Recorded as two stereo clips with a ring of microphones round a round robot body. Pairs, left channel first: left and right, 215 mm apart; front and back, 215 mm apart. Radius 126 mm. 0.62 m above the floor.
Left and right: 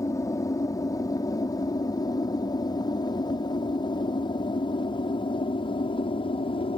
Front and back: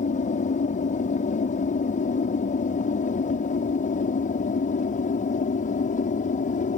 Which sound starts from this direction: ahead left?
An aircraft, at 0.0 s.